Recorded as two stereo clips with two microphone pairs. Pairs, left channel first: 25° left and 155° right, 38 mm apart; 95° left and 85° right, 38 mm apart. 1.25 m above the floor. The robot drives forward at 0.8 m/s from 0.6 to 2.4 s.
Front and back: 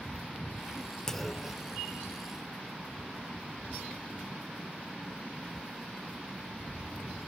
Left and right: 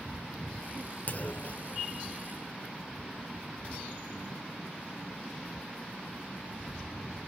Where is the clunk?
90° left, 0.6 m; by 1.7 s 145° left, 0.8 m.